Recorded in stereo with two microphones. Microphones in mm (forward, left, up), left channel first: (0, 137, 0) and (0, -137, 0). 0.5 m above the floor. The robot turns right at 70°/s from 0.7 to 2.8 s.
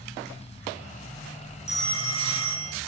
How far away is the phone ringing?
About 1.9 m.